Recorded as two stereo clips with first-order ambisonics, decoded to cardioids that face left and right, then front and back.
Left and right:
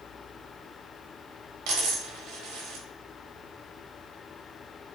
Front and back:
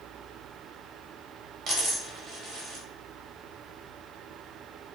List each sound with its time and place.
1.7 s a dropped coin: 120° right, 0.7 m